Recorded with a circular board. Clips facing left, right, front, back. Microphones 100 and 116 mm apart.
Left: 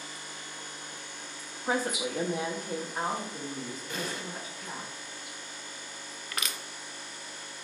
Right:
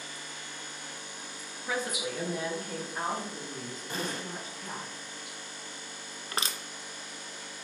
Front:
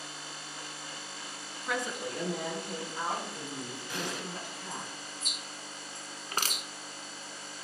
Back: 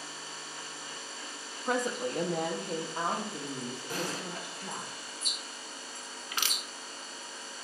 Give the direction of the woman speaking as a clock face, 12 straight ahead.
8 o'clock.